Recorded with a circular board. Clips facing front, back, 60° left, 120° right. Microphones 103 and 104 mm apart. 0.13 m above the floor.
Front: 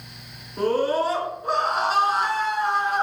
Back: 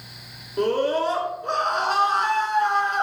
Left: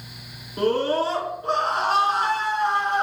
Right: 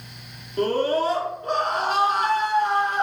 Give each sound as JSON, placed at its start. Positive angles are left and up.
{"t": 0.6, "sound": "a scream", "azimuth_deg": 75, "distance_m": 1.7}